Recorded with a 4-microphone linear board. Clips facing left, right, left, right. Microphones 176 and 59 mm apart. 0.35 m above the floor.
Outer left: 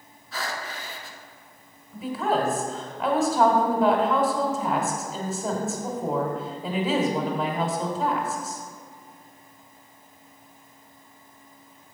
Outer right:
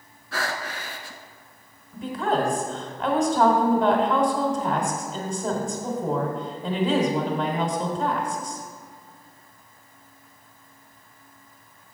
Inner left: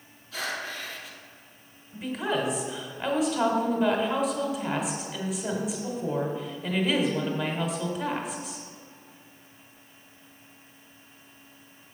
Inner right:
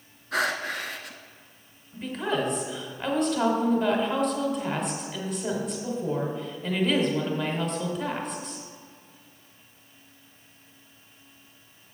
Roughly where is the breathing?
Right.